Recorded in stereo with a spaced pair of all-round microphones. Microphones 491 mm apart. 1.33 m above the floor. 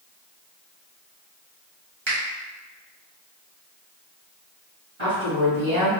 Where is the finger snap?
60° right (ahead or behind), 1.4 m.